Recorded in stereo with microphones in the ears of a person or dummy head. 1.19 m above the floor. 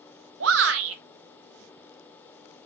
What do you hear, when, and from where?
0.4 s a shout: 75° right (ahead or behind), 1.1 m